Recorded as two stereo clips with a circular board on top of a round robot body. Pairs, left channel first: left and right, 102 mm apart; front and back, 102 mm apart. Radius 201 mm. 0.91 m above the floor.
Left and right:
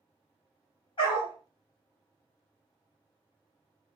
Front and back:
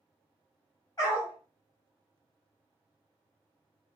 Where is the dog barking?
50° left, 0.7 m.